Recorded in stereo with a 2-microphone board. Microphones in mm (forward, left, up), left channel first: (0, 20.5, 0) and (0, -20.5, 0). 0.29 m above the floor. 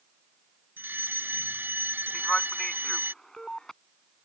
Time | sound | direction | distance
0.8 | a fire alarm | 60° right (ahead or behind) | ?
2.1 | a man speaking | 15° left (ahead or behind) | ?